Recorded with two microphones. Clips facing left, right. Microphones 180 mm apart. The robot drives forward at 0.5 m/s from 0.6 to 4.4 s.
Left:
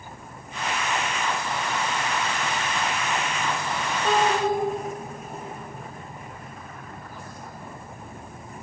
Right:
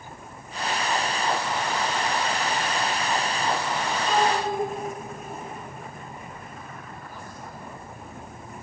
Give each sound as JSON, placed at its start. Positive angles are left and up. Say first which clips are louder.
{"t": 4.0, "sound": "a child speaking", "louder": "left 3 dB", "side_deg": 80, "distance_m": 2.0}